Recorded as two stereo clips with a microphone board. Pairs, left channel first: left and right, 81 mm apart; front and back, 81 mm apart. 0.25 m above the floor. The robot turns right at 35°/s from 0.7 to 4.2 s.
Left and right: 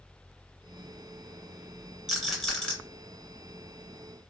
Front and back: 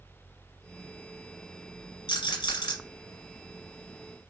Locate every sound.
2.1 s a rattle: 5° right, 1.4 m; by 2.8 s 15° left, 1.4 m